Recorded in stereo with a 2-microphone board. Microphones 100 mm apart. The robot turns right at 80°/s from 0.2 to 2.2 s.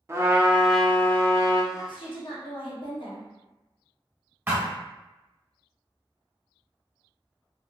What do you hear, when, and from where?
0.1 s a trumpet: 40° right, 0.6 m; by 1.6 s 70° left, 0.6 m
1.7 s a woman speaking: 50° left, 1.0 m; by 3.3 s 90° left, 1.0 m
4.5 s a thud: 20° right (ahead or behind), 1.7 m